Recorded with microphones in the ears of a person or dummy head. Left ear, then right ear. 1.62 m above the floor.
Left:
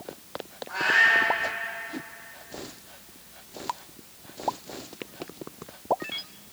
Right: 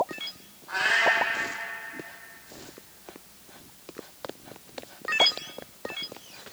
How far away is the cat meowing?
About 2.5 m.